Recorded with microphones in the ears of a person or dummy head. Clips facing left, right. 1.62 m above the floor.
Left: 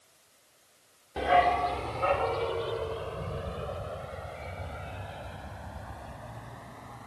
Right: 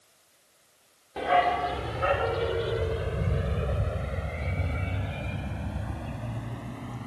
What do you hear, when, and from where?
1.2 s a dog barking: centre (ahead or behind); by 7.1 s 45° right (ahead or behind)